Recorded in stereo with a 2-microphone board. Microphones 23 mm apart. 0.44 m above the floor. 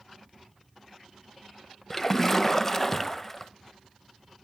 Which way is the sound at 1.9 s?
15° left (ahead or behind).